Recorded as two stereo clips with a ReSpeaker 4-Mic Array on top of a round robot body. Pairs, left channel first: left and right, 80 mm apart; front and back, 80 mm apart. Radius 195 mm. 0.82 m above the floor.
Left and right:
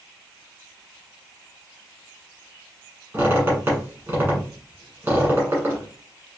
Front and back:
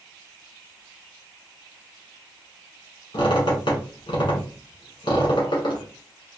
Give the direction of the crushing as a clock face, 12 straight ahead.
No crushing in this recording.